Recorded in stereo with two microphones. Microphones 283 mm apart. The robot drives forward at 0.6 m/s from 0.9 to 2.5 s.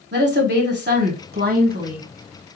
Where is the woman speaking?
40° right (ahead or behind), 1.4 m; by 2.1 s 30° right (ahead or behind), 1.7 m.